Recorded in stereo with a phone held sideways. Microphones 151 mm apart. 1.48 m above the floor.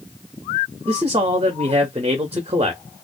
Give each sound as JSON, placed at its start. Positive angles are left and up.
{"t": 0.9, "sound": "a man speaking", "side_deg": -40, "distance_m": 0.6}